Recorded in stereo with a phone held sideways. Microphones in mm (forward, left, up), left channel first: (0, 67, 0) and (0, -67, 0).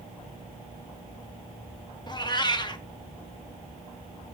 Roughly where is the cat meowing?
Left.